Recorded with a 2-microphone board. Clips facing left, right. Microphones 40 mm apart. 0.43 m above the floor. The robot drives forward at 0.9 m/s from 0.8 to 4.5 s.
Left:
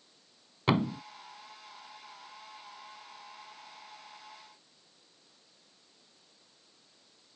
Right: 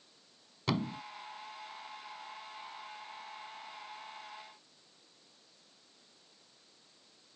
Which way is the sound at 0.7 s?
30° left (ahead or behind).